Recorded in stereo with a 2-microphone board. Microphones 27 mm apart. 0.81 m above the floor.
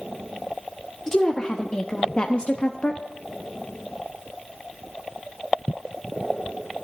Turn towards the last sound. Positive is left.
turn(degrees=45)  # may be behind; listen again after turning